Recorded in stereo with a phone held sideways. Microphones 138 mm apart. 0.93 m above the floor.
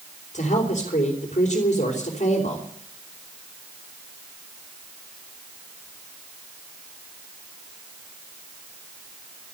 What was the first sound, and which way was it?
A woman speaking, 60° left (ahead or behind).